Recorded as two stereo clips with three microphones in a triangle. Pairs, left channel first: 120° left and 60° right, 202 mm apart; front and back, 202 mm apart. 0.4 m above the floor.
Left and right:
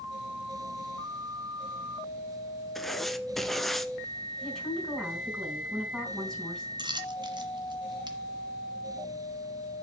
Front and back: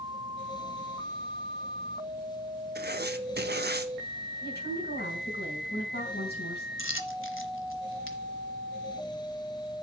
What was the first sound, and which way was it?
Writing, 150° right.